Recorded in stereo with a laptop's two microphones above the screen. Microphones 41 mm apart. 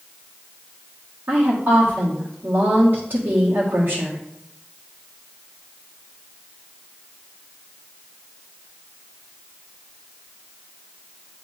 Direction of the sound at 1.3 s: 50° right (ahead or behind).